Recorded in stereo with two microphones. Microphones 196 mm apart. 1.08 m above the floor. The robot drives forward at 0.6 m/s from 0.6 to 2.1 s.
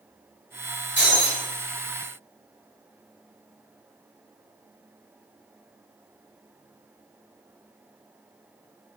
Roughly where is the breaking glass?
Left.